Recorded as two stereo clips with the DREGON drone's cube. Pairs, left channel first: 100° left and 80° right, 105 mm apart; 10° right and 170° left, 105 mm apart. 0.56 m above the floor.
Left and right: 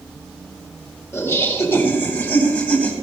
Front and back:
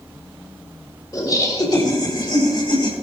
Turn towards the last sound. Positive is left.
turn(degrees=25)